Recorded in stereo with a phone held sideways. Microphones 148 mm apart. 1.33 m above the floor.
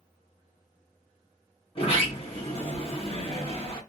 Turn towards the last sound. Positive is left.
turn(degrees=40)  # may be behind; listen again after turning